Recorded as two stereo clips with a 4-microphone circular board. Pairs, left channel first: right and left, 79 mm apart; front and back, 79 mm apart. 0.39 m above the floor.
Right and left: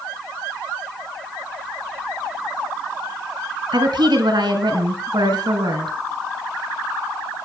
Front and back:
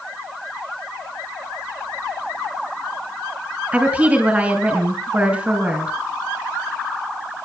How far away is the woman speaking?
About 3.5 m.